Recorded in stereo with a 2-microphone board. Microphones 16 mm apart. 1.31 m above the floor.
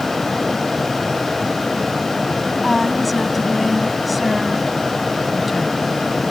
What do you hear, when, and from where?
2.6 s a woman speaking: 5° right (ahead or behind)